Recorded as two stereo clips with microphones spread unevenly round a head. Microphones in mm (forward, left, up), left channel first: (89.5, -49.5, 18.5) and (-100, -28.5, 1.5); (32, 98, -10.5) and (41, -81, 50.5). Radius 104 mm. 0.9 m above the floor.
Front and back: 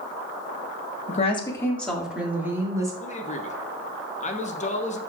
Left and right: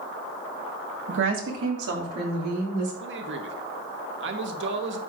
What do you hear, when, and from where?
1.1 s a woman speaking: 55° right, 1.3 m; by 2.9 s 115° right, 3 m
3.0 s a man speaking: 60° right, 1.0 m